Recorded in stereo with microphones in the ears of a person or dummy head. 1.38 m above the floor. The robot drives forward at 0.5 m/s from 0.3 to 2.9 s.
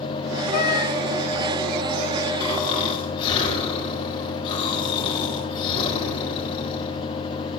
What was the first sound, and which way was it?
A cat meowing, 55° left (ahead or behind).